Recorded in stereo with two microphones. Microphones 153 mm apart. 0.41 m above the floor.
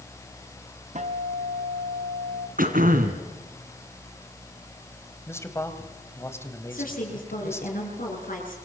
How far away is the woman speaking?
About 7 m.